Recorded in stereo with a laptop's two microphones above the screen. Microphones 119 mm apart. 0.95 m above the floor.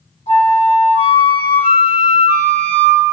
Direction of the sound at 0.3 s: 75° left (ahead or behind).